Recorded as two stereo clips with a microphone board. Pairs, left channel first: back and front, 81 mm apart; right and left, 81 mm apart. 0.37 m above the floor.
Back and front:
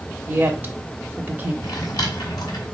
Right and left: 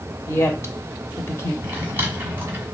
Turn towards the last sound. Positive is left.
turn(degrees=150)